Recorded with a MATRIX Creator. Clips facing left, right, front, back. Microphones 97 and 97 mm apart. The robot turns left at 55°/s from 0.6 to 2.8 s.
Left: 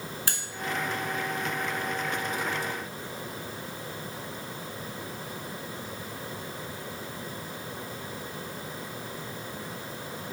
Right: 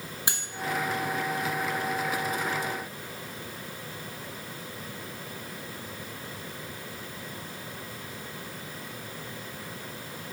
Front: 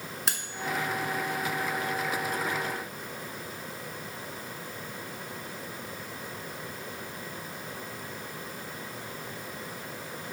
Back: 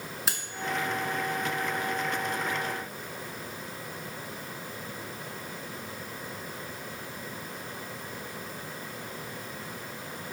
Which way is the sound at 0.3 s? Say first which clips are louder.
Right 4 dB, even; 90° right.